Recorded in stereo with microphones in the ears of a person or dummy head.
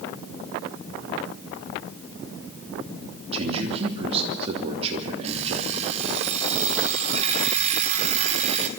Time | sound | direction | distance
3.3 | a man speaking | 35° right (ahead or behind) | 3 m
5.2 | an alarm clock | 35° right (ahead or behind) | 2 m